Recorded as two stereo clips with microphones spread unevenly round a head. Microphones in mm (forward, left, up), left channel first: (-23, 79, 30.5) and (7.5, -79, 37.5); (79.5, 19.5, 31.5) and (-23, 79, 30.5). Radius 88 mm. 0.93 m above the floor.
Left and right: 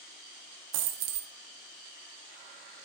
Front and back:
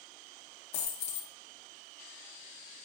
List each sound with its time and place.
0.7 s a dropped coin: 80° right, 0.7 m